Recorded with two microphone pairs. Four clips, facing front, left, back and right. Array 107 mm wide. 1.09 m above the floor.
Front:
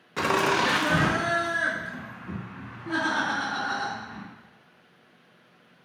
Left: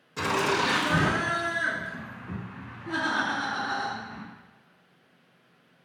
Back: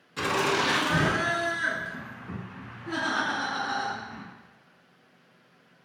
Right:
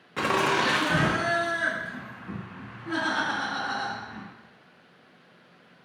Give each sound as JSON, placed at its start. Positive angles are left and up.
{"t": 0.2, "sound": "laughter", "azimuth_deg": -35, "distance_m": 0.6}